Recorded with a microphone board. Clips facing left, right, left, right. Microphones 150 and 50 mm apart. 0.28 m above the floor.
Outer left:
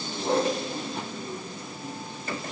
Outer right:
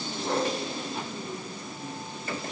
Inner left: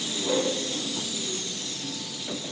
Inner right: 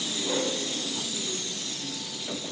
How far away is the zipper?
I don't hear a zipper.